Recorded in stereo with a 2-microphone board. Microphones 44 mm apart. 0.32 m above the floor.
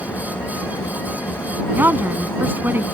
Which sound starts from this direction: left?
An engine running, at 0.0 s.